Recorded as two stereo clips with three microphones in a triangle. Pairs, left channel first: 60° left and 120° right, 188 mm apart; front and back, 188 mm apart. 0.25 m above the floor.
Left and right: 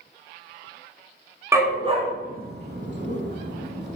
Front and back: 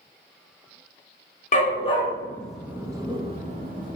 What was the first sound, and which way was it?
A dog barking, 45° right.